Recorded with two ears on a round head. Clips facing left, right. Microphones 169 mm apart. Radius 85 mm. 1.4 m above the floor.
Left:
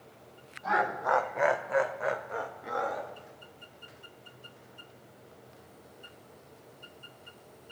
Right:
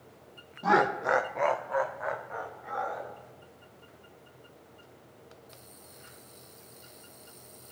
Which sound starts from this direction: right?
Laughter, at 0.6 s.